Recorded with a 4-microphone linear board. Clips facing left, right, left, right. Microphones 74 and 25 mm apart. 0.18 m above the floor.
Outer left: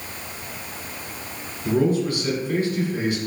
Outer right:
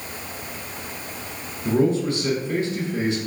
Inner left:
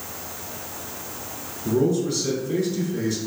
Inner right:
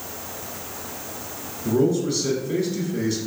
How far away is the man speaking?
About 1.1 m.